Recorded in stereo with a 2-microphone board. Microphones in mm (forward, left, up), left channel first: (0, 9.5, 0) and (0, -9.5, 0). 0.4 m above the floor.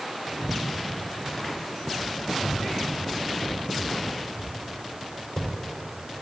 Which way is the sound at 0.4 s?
60° left (ahead or behind).